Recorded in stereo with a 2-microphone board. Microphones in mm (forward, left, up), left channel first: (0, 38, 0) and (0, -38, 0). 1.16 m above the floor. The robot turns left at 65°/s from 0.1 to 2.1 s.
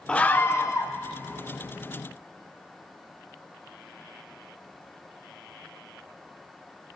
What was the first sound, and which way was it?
A scream, 165° left.